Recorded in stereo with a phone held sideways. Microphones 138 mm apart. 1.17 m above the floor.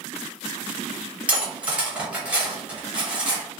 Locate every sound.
1.3 s cutlery clinking: 10° right (ahead or behind), 1.0 m